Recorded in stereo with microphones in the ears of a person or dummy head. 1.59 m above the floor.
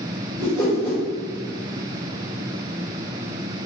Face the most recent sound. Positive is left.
turn(degrees=5)  # may be behind; listen again after turning